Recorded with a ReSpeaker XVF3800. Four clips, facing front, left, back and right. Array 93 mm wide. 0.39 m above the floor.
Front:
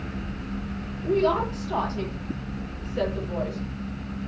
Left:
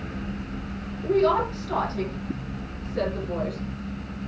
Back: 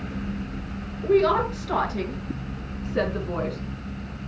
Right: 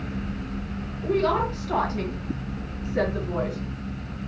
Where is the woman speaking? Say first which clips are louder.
Left 2 dB, back 3 dB; straight behind, 6 m; by 3.6 s 155° right, 4 m.